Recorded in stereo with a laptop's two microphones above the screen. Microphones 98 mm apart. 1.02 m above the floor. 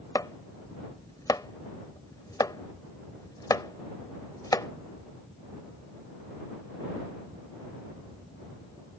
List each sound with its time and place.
0.1 s chopping: 40° left (ahead or behind)